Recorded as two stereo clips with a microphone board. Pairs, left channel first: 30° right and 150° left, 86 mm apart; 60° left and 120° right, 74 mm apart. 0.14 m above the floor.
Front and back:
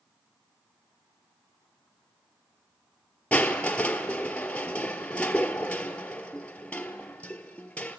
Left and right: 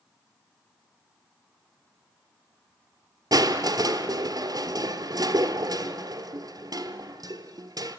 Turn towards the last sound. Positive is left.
turn(degrees=-105)